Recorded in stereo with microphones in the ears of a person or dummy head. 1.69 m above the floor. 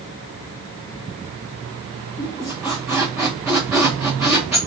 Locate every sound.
2.2 s a squeak: 5° right (ahead or behind), 0.6 m